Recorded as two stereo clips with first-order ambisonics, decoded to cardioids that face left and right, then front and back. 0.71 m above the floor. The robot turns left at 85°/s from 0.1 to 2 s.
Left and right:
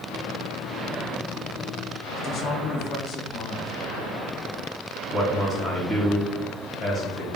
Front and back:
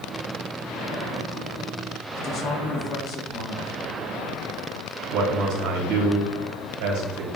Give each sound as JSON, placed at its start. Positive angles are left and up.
{"t": 2.1, "sound": "a man speaking", "azimuth_deg": 55, "distance_m": 1.1}
{"t": 5.1, "sound": "a man speaking", "azimuth_deg": 170, "distance_m": 3.0}